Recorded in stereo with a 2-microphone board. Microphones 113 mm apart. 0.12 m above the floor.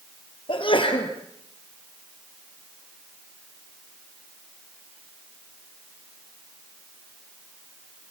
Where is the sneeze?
45° left (ahead or behind), 3 m.